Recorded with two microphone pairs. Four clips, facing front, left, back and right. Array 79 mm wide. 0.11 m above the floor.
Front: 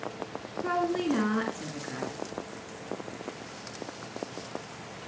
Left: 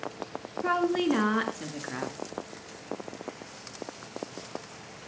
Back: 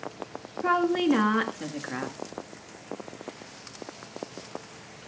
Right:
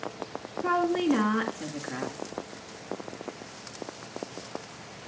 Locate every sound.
0.6 s a woman speaking: 165° left, 1.6 m